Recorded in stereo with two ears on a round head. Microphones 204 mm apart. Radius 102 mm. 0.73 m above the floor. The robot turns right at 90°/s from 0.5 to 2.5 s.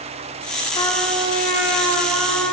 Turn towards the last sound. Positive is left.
turn(degrees=-45)